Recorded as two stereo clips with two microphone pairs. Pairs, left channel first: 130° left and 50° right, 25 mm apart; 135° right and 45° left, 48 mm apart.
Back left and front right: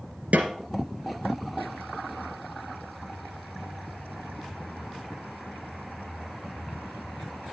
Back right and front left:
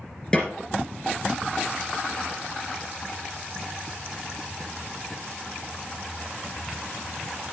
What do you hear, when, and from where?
0.3 s a snare drum: 65° right, 2.5 m